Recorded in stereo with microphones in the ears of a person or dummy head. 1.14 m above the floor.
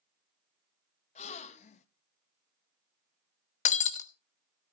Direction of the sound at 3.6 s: 45° left (ahead or behind).